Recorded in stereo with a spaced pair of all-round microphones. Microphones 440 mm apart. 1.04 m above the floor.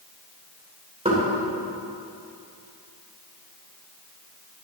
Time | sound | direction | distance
1.1 | knocking | 15° right (ahead or behind) | 3 m